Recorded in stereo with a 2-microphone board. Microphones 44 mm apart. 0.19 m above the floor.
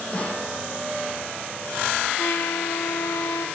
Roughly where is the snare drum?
Left.